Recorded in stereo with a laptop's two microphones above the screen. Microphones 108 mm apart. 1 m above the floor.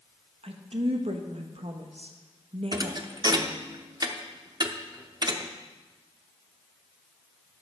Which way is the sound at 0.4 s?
70° right (ahead or behind).